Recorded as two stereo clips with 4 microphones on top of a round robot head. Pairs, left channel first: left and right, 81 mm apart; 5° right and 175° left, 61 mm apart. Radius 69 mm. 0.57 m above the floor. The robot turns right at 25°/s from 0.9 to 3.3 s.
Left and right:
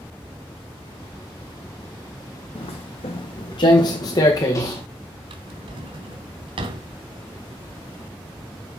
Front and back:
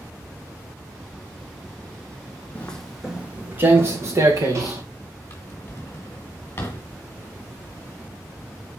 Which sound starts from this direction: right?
A drawer, at 5.3 s.